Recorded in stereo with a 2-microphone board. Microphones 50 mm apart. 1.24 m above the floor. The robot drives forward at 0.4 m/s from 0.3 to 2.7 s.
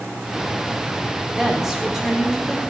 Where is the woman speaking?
10° right (ahead or behind), 4.5 m; by 2.6 s 5° right (ahead or behind), 5 m.